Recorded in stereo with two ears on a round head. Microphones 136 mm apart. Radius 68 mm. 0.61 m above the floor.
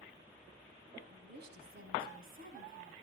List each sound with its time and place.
1.1 s a woman speaking: 75° right (ahead or behind), 4 m; by 2.9 s 60° right (ahead or behind), 4.5 m